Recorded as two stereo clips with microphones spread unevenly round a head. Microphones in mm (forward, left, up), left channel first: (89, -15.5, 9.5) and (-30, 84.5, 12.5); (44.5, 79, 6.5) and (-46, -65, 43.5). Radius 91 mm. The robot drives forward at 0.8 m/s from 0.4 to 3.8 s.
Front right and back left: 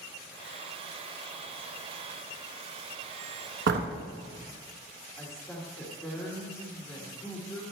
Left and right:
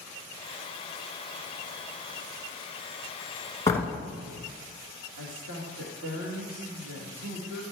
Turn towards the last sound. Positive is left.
turn(degrees=-115)